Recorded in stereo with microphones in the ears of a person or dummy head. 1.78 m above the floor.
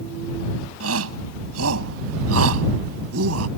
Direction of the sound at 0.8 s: 75° right (ahead or behind).